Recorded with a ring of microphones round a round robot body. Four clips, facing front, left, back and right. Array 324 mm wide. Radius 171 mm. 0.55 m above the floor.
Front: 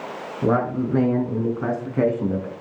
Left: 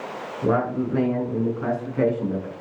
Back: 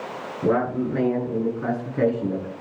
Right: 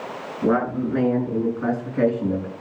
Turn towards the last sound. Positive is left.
turn(degrees=-10)